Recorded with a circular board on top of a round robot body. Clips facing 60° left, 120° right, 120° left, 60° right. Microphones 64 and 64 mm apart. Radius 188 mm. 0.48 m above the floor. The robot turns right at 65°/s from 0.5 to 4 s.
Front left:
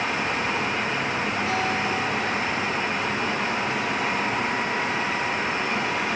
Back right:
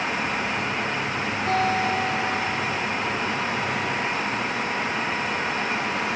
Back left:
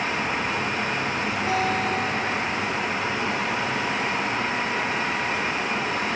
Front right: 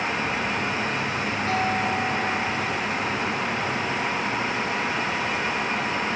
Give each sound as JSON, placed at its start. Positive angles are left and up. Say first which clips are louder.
{"t": 1.5, "sound": "a guitar", "louder": "back right 6 dB, even", "azimuth_deg": -170, "distance_m": 2.5}